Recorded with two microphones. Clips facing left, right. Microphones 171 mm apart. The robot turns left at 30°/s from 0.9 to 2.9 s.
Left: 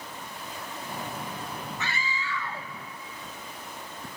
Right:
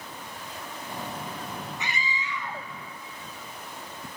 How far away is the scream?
About 1.2 m.